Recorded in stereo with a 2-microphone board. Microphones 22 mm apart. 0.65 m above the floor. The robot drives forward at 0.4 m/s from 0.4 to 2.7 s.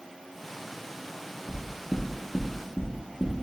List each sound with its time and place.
1.5 s knocking: 25° left (ahead or behind), 0.6 m; by 3.4 s 20° left (ahead or behind), 0.6 m